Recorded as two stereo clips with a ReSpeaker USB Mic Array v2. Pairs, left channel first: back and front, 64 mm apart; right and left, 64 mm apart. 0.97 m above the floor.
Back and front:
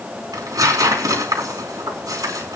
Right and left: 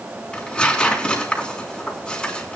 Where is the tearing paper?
15° right, 4 m.